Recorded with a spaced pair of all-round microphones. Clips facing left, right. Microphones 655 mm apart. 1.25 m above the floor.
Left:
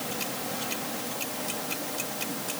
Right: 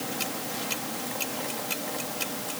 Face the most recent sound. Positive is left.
No sound to turn to.